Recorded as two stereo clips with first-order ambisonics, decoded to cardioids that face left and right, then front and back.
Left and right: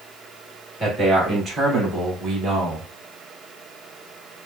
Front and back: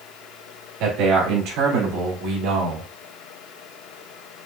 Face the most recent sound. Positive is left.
turn(degrees=-170)